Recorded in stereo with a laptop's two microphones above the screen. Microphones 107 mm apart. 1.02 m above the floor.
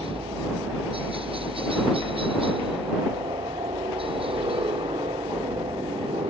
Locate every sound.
0.0 s a helicopter: 60° right (ahead or behind)